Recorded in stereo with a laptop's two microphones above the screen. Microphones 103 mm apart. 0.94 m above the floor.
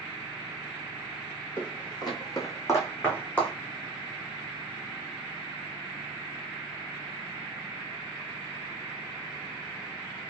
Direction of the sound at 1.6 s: 50° left (ahead or behind).